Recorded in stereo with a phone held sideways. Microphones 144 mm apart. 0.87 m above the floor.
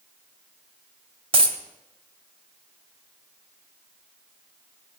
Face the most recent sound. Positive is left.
turn(degrees=-40)  # may be behind; listen again after turning